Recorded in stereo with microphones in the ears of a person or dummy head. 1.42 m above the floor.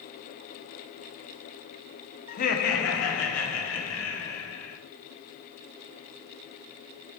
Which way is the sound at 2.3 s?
40° left (ahead or behind).